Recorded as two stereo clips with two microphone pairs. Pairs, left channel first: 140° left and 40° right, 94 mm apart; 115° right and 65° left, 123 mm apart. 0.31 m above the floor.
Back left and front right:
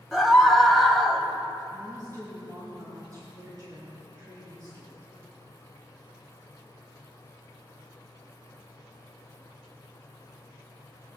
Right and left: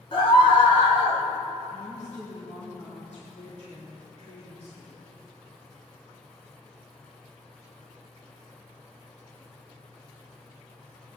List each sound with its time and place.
0.1 s a scream: 135° right, 2 m
1.7 s a woman speaking: 90° right, 4.5 m